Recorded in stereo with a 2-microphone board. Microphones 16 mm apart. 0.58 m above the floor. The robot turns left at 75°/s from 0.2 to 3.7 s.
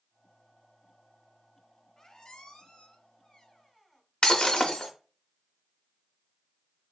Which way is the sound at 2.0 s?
150° left.